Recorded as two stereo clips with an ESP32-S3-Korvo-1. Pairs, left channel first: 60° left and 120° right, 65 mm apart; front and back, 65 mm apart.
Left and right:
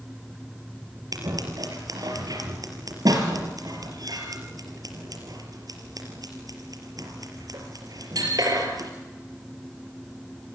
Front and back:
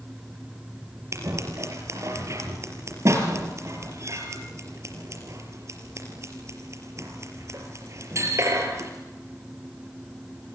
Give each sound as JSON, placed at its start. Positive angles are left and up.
{"t": 1.1, "sound": "scissors", "azimuth_deg": -140, "distance_m": 4.5}